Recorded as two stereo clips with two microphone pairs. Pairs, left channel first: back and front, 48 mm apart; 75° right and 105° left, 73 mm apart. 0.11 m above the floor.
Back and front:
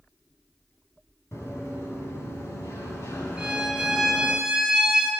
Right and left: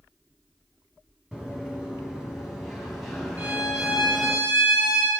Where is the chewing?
No chewing in this recording.